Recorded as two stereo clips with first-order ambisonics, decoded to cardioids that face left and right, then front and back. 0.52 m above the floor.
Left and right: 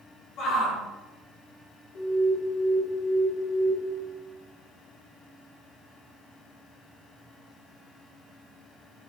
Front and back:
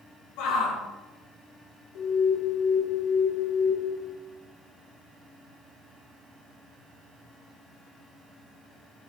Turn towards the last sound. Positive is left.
turn(degrees=35)